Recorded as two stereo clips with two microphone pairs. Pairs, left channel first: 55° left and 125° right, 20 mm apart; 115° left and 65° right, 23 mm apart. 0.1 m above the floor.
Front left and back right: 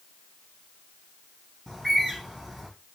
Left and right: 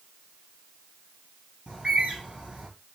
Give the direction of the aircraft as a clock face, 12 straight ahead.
I don't hear an aircraft.